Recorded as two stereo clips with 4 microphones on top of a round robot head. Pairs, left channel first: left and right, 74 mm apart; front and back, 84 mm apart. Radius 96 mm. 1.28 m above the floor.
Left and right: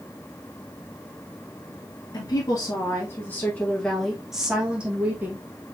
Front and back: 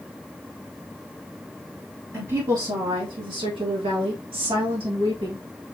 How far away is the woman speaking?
About 1.4 m.